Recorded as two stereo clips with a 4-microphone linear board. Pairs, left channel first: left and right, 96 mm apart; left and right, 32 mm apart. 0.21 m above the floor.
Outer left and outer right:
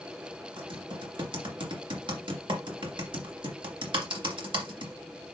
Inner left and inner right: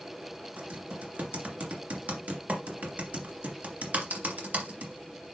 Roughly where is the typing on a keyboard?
Right.